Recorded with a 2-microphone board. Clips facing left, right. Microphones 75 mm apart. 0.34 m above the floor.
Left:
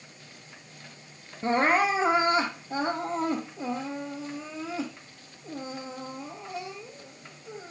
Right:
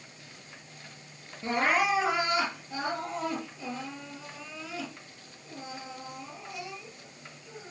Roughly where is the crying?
Left.